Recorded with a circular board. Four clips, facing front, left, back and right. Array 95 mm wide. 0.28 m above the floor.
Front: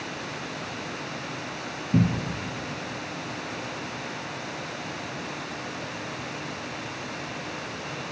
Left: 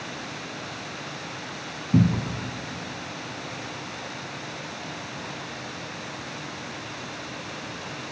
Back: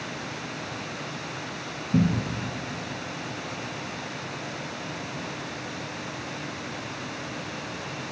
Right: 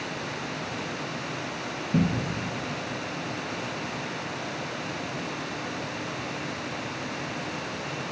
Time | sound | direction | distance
1.9 | a cupboard door | 55° left | 1.3 m